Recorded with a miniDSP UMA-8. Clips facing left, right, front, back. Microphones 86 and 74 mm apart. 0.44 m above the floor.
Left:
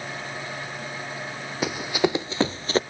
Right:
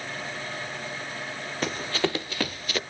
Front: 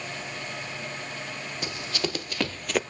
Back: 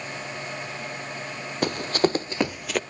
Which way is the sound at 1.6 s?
170° left.